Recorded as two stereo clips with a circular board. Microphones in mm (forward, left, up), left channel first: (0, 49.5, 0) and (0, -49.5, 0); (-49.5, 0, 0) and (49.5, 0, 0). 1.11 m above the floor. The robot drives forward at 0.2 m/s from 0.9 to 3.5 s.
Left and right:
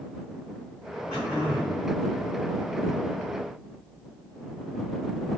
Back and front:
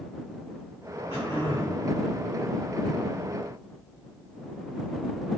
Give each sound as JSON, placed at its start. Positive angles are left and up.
{"t": 1.1, "sound": "throat clearing", "azimuth_deg": -170, "distance_m": 1.8}